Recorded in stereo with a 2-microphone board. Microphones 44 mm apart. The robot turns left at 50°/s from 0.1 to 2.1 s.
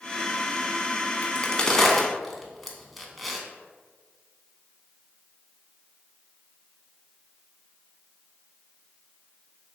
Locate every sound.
1.2 s a crack: 30° left (ahead or behind), 0.6 m; by 3.4 s centre (ahead or behind), 0.6 m